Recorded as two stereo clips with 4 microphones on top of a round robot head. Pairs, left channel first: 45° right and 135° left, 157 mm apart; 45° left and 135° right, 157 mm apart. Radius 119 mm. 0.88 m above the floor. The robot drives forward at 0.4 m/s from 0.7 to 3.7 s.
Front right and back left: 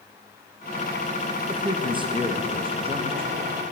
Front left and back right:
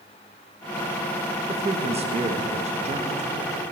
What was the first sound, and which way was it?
A man speaking, 170° right.